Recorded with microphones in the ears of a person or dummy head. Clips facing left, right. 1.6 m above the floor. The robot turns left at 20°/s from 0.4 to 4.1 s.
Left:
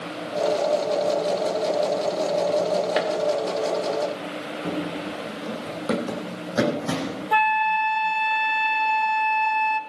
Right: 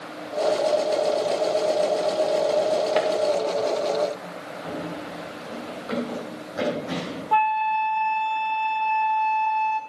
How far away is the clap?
About 1.8 m.